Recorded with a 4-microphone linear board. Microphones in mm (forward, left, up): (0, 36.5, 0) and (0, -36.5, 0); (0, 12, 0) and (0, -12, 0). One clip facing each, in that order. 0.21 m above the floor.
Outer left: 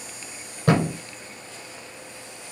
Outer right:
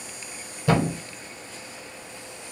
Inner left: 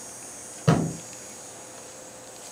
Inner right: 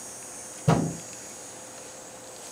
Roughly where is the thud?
Left.